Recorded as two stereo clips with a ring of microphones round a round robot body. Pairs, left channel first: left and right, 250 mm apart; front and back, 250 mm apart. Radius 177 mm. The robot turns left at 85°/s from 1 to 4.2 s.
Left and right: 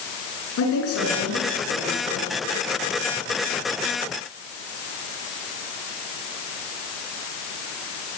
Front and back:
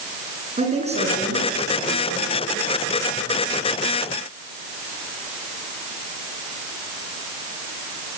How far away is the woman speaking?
About 9 m.